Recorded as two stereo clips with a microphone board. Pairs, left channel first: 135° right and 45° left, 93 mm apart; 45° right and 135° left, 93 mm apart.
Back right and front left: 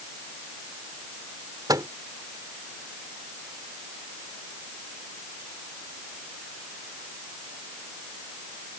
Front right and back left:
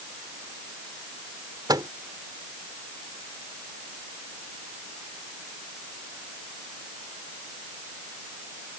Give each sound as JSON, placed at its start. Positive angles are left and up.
{"t": 1.7, "sound": "a microwave", "azimuth_deg": 90}